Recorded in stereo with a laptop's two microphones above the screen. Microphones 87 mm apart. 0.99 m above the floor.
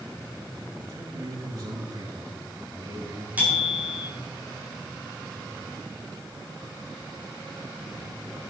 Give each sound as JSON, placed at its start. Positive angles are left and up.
{"t": 0.8, "sound": "a man speaking", "side_deg": -60, "distance_m": 7.0}
{"t": 3.4, "sound": "a bicycle bell", "side_deg": -20, "distance_m": 8.5}